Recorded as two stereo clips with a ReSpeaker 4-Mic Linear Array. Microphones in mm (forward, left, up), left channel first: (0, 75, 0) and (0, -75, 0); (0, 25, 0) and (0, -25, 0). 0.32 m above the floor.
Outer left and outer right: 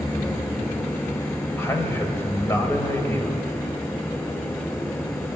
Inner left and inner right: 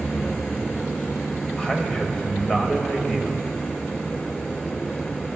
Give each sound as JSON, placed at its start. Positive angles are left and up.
{"t": 1.6, "sound": "a man speaking", "side_deg": 15, "distance_m": 1.0}